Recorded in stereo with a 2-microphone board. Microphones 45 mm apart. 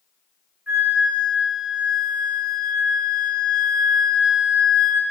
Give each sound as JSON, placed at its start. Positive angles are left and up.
{"t": 0.7, "sound": "a flute", "side_deg": -40, "distance_m": 0.7}